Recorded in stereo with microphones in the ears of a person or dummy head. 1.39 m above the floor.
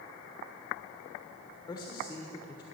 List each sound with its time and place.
1.7 s a man speaking: 15° left (ahead or behind), 1.2 m